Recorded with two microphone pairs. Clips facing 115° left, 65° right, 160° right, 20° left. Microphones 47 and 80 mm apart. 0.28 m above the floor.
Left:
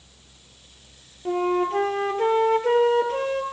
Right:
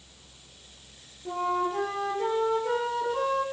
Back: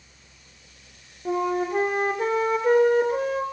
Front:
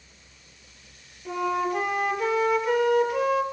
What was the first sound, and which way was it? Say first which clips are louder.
A flute: left 5 dB, back 2 dB; 150° left.